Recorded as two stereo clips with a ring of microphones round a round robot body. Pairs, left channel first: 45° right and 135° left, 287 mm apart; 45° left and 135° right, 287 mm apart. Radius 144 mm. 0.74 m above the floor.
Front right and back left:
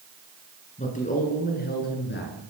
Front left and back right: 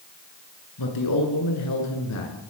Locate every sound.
0.8 s a man speaking: 20° left, 10 m; by 2.3 s 10° left, 10 m